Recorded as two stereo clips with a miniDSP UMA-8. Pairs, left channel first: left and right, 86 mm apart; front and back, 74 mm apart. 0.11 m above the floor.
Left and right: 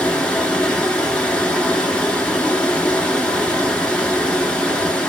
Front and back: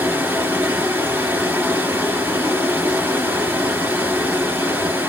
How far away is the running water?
About 1.0 m.